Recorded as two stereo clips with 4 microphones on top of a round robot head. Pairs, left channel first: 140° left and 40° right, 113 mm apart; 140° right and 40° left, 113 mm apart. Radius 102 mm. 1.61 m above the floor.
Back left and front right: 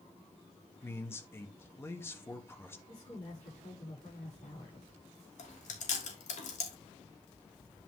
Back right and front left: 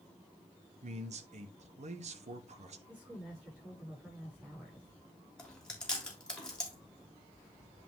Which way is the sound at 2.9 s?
120° left.